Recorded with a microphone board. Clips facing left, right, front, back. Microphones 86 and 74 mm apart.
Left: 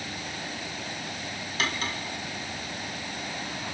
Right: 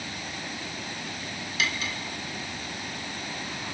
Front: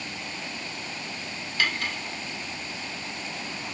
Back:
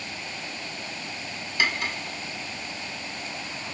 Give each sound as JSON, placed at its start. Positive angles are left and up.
{"t": 1.6, "sound": "cutlery clinking", "azimuth_deg": 110, "distance_m": 0.9}